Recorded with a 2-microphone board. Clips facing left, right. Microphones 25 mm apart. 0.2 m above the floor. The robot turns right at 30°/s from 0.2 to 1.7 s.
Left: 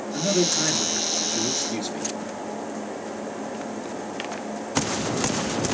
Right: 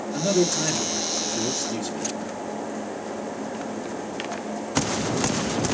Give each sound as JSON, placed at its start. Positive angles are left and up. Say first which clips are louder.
{"t": 0.1, "sound": "a man speaking", "louder": "even", "azimuth_deg": 0, "distance_m": 3.5}